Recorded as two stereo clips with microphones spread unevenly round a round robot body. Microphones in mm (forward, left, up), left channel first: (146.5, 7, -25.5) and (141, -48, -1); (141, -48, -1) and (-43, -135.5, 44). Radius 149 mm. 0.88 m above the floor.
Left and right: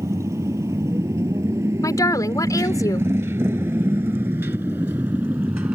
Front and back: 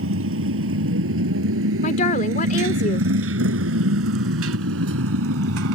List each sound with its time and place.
0.0 s a motorcycle: 145° right; by 5.8 s 165° right
1.8 s a woman speaking: 90° left